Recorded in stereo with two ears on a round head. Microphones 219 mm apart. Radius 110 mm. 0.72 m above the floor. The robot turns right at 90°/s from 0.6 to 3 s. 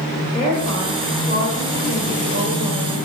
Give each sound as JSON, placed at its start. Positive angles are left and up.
{"t": 0.3, "sound": "a woman speaking", "azimuth_deg": 155, "distance_m": 6.5}